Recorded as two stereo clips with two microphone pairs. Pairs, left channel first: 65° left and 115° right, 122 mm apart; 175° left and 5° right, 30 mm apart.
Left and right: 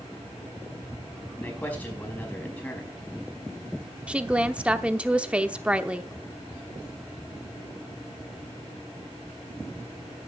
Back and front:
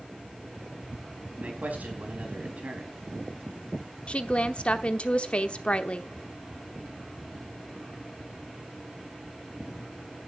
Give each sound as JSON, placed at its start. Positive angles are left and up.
{"t": 1.4, "sound": "a man speaking", "azimuth_deg": -10, "distance_m": 5.0}
{"t": 4.1, "sound": "a woman speaking", "azimuth_deg": 170, "distance_m": 0.9}